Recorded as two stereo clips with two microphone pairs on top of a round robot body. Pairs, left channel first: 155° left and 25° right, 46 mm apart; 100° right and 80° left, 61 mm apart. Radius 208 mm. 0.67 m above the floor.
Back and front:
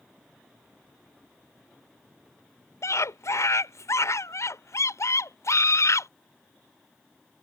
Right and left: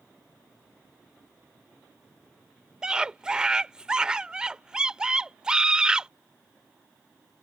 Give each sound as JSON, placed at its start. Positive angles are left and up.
{"t": 2.8, "sound": "a scream", "azimuth_deg": 160}